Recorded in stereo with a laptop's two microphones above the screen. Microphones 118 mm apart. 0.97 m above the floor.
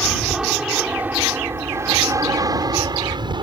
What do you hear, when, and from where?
0.0 s an aircraft: centre (ahead or behind); by 3.4 s 40° right (ahead or behind)